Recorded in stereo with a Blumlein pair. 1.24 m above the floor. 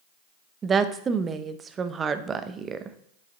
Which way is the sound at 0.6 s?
20° right.